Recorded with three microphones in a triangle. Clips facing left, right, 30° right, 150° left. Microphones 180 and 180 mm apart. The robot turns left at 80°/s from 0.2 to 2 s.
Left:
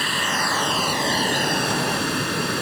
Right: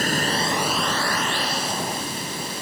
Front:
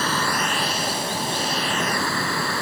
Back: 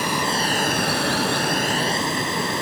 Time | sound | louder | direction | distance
0.0 | running water | right 3 dB, back 1 dB | 135° right | ?